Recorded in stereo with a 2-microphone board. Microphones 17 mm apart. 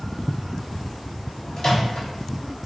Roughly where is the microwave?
Left.